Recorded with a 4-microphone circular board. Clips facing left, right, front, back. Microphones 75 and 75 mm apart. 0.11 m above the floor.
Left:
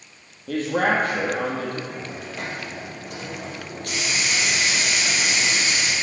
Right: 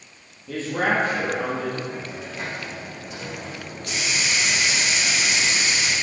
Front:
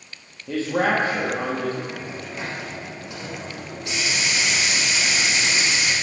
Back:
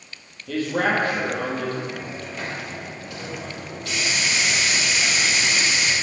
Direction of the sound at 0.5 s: 65° left.